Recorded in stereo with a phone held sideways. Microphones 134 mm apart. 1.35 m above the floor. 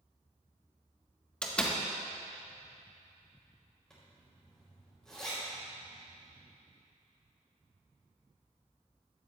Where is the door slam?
5° left (ahead or behind), 1.3 m.